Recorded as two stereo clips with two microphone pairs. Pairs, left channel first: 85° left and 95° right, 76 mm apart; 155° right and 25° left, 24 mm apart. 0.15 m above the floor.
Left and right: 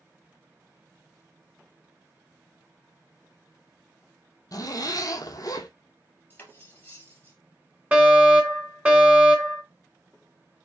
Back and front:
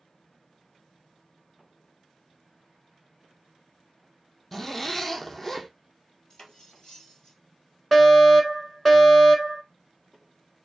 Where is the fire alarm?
90° right, 2 m.